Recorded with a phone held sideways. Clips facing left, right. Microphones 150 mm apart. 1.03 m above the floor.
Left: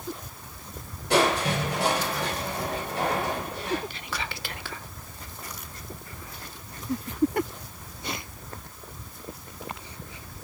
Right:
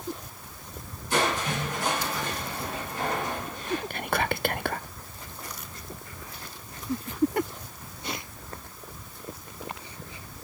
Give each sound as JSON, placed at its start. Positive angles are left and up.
{"t": 1.1, "sound": "crushing", "side_deg": 75, "distance_m": 5.0}
{"t": 3.9, "sound": "whispering", "side_deg": -55, "distance_m": 0.5}